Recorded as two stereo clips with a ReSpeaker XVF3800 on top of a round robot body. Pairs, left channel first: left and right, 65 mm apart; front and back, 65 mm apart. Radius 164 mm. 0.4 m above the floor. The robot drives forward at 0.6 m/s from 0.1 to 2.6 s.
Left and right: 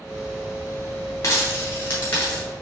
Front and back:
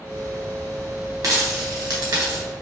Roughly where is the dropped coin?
Behind left.